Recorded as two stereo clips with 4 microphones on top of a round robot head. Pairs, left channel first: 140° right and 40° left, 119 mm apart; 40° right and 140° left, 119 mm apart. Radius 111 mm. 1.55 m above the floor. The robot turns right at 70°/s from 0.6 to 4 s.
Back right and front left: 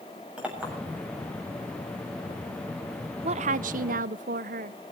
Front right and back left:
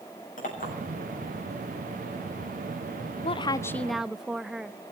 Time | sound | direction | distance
0.4 | a clink | 40° right | 7.5 m
3.2 | a woman speaking | straight ahead | 0.6 m